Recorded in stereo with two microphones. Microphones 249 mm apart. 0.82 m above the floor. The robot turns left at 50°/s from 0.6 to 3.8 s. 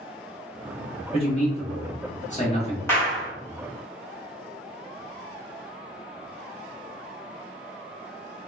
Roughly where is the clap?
Centre.